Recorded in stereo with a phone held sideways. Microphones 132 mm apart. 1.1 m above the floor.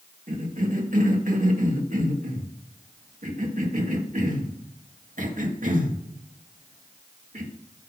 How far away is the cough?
About 2 m.